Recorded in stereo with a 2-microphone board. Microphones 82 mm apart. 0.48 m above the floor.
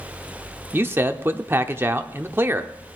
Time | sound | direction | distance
0.7 | a man speaking | 25° right (ahead or behind) | 0.8 m